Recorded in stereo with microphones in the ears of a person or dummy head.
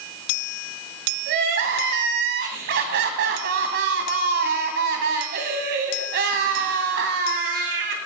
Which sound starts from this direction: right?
Crying, at 1.3 s.